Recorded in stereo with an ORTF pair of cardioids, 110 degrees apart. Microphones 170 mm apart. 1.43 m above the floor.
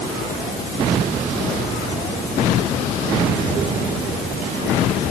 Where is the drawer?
No drawer in this recording.